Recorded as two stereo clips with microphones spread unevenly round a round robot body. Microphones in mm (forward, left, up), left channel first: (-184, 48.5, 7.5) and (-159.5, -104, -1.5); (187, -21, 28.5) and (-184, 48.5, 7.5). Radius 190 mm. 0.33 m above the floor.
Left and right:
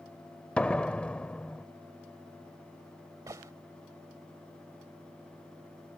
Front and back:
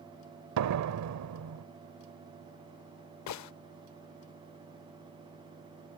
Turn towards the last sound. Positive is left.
turn(degrees=-25)